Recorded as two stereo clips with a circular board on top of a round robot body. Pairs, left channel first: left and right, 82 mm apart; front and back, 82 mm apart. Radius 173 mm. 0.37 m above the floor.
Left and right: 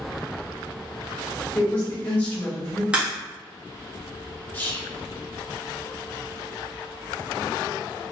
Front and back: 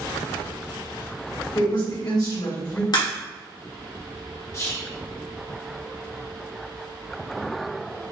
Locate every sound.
1.6 s a woman speaking: 25° left, 1.8 m
2.9 s a crack: 15° right, 1.8 m
4.5 s whispering: 30° left, 1.6 m